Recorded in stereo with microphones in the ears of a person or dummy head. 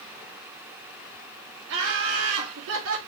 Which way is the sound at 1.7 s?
65° right (ahead or behind).